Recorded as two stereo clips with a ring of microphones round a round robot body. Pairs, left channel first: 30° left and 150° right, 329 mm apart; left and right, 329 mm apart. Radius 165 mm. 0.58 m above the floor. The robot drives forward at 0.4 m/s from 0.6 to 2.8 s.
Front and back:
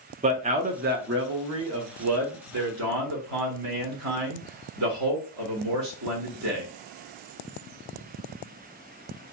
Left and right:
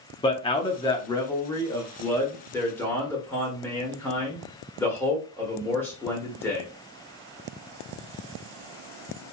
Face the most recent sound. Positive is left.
turn(degrees=175)